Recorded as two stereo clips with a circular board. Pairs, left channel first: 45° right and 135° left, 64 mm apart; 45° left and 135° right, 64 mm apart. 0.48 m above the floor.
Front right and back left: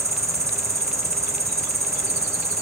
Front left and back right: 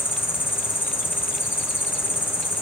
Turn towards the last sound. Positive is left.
turn(degrees=100)